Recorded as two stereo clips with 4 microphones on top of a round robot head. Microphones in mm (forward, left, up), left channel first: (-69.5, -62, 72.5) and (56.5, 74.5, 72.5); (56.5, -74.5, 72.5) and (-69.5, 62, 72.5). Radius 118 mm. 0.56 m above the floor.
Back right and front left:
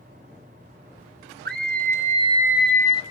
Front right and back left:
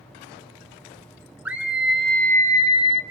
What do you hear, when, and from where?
1.4 s a scream: 50° left, 2 m; by 3.0 s 85° right, 1.4 m